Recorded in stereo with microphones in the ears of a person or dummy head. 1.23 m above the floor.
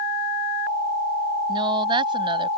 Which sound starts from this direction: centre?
A woman speaking, at 1.5 s.